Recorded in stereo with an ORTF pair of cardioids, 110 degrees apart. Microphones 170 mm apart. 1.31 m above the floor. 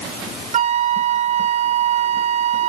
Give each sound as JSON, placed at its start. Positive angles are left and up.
{"t": 0.5, "sound": "a flute", "azimuth_deg": -40, "distance_m": 0.6}